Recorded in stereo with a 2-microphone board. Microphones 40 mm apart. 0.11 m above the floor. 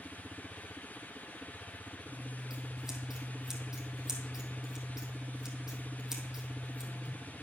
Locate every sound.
2.1 s scissors: 10° right (ahead or behind), 1.9 m